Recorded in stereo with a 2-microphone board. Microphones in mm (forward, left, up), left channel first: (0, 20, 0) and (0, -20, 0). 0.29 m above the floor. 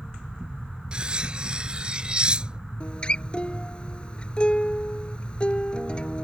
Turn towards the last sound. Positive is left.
turn(degrees=25)  # may be behind; listen again after turning